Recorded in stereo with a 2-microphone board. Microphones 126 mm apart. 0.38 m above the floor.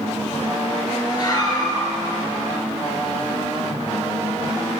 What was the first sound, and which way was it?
A scream, 30° left (ahead or behind).